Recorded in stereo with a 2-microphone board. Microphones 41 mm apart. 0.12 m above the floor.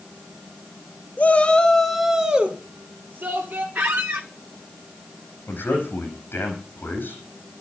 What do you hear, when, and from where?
1.2 s a shout: 40° left (ahead or behind), 1.9 m; by 3.6 s 60° right (ahead or behind), 3 m
3.8 s a squeak: 55° right (ahead or behind), 1.3 m
5.5 s a man speaking: 55° left (ahead or behind), 6.5 m